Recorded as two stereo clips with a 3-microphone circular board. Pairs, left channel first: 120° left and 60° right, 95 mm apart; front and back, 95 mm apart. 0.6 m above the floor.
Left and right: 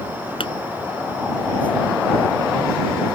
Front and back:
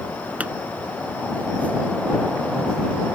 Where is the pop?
105° left.